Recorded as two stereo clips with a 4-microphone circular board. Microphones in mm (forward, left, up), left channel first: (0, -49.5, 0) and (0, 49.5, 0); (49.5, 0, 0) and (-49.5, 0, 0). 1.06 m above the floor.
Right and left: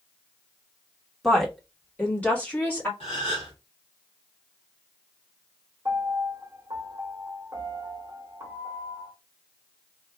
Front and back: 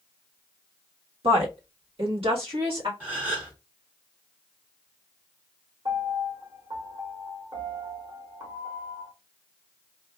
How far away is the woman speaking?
About 1.3 m.